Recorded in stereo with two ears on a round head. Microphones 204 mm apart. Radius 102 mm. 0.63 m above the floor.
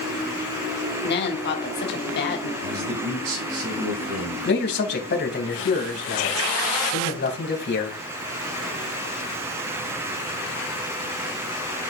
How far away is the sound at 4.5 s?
About 3.5 m.